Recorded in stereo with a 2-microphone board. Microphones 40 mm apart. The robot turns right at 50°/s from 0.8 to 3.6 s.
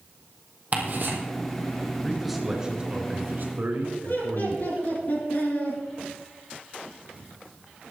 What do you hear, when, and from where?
0.7 s ticking: 40° right (ahead or behind), 2.5 m; by 1.2 s 60° right (ahead or behind), 2.5 m
2.0 s a man speaking: 165° left, 2.5 m; by 4.9 s 115° right, 2.5 m
4.0 s laughter: 50° left (ahead or behind), 4.5 m